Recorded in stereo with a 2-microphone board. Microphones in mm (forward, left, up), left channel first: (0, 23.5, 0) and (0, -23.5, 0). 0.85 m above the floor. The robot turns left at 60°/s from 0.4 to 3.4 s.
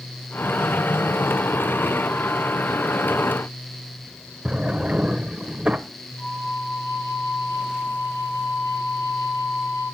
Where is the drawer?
25° right (ahead or behind), 0.8 m.